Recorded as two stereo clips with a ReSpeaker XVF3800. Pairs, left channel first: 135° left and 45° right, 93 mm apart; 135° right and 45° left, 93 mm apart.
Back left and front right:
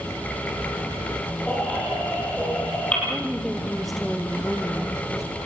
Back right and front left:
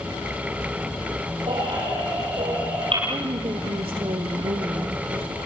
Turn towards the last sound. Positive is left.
turn(degrees=45)